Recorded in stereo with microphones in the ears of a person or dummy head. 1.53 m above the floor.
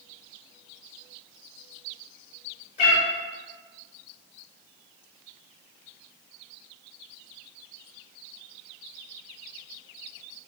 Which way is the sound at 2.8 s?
40° left (ahead or behind).